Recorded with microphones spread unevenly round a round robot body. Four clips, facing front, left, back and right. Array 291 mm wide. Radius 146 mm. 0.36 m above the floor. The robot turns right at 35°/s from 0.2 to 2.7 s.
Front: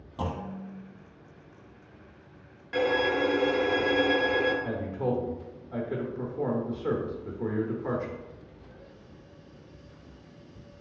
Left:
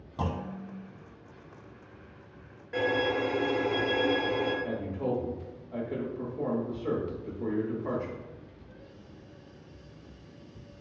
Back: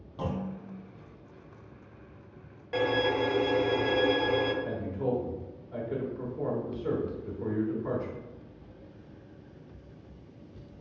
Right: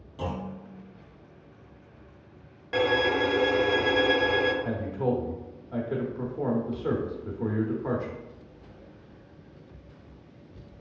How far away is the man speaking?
About 0.9 m.